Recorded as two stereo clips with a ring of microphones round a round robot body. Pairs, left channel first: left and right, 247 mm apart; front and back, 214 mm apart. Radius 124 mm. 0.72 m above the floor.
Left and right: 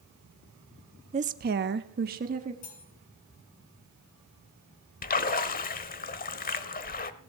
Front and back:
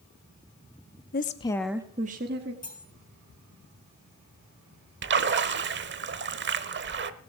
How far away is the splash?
About 1.0 m.